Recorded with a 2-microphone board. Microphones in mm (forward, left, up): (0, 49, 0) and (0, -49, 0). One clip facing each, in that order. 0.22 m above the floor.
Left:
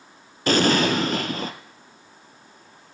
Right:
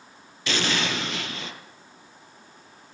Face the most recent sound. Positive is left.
turn(degrees=45)  # may be behind; listen again after turning